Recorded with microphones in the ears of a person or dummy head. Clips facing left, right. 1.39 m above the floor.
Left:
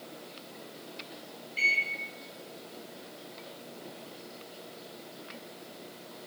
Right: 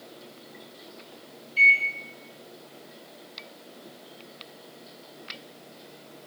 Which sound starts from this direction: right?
A microwave, at 1.6 s.